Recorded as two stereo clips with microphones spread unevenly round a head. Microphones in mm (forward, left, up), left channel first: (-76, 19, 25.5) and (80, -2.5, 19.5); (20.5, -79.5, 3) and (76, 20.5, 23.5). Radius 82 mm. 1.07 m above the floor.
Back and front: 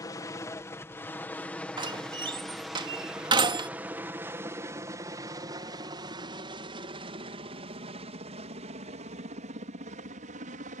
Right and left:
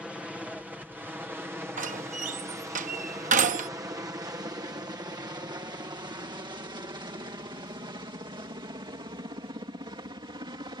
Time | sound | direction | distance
0.0 | a helicopter | 150° left | ?
1.8 | a door slam | 55° left | ?